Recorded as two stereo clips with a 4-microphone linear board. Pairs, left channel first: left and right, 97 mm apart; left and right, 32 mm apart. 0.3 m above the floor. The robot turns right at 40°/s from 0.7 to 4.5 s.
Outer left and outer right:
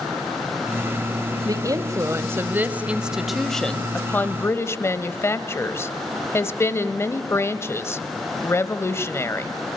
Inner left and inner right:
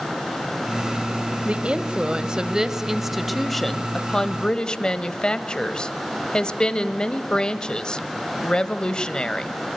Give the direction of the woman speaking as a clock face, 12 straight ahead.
3 o'clock.